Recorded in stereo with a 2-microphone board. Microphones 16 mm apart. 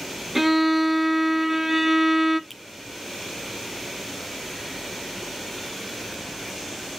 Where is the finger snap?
Centre (ahead or behind), 2.5 m.